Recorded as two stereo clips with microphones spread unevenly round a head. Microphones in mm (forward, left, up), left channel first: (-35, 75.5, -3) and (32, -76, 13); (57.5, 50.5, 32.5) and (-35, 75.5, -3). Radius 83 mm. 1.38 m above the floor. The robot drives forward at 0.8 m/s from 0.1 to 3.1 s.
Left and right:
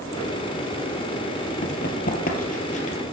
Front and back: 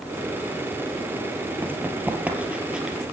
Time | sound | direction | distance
1.6 | running footsteps | 85° left | 2.5 m